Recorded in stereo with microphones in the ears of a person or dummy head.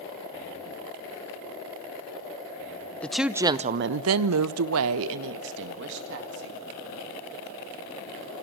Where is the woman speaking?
15° left (ahead or behind), 0.8 m; by 6.6 s 65° right (ahead or behind), 2.5 m.